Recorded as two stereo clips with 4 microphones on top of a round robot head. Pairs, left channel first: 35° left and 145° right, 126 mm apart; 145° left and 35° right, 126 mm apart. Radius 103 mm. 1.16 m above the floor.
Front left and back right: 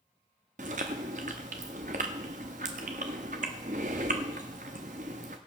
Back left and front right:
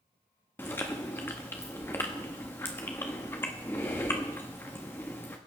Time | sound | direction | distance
0.6 | chewing | 150° right | 0.6 m